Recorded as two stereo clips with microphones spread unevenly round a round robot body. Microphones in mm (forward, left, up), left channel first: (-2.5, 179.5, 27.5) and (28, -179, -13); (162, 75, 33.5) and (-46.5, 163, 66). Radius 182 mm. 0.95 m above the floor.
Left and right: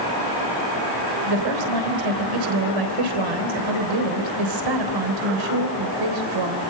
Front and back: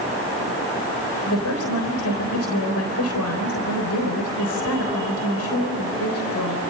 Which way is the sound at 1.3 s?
60° right.